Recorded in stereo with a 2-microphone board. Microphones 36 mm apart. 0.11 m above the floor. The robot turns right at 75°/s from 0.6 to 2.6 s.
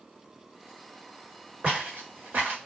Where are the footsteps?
45° right (ahead or behind), 1.6 m; by 2.6 s 65° right (ahead or behind), 1.6 m.